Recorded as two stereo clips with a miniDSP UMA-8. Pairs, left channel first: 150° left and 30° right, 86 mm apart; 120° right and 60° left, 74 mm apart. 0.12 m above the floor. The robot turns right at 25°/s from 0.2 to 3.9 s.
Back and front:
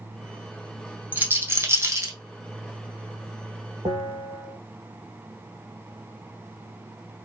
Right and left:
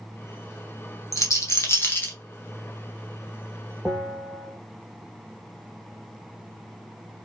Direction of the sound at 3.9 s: 10° right.